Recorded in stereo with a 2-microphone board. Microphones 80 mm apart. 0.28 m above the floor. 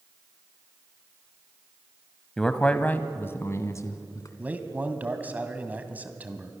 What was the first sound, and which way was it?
A man speaking, 5° left (ahead or behind).